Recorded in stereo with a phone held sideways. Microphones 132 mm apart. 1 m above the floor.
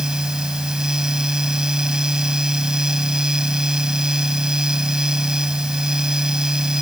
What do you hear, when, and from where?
0.0 s a fan: 5° right (ahead or behind)